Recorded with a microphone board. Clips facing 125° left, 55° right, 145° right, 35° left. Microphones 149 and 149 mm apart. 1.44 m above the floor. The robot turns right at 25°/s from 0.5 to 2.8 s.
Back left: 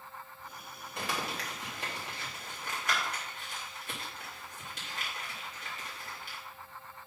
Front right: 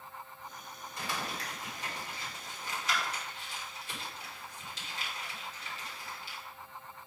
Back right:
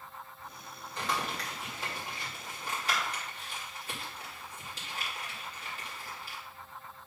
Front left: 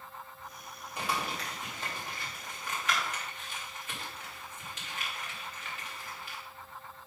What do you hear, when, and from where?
1.0 s crumpling: 110° left, 3 m; by 6.4 s 160° left, 3 m